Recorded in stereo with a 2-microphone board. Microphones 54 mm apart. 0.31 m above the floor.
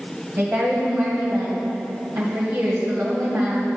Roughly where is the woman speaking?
Right.